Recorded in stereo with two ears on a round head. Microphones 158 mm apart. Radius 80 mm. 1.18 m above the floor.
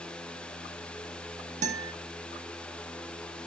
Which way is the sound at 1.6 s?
45° right (ahead or behind).